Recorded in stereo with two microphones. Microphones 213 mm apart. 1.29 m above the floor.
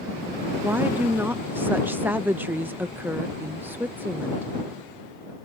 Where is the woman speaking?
10° right (ahead or behind).